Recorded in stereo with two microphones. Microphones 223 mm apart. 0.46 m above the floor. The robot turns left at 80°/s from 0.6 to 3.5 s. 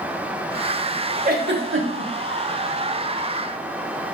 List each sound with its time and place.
1.2 s a giggle: 40° right (ahead or behind), 1.0 m; by 2.1 s 60° right (ahead or behind), 1.0 m